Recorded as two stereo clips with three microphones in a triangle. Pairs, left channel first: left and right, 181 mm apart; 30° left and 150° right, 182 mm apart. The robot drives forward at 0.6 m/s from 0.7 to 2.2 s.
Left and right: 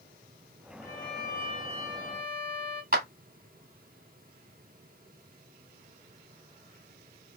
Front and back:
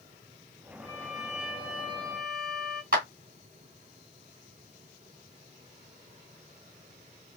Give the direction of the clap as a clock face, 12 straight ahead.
4 o'clock.